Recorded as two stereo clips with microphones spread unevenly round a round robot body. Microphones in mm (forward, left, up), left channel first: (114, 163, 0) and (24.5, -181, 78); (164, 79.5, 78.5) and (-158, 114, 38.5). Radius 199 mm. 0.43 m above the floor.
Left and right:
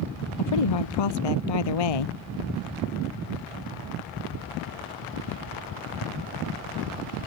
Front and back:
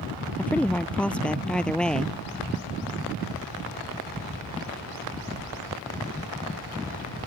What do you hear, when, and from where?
0.4 s a woman speaking: 80° left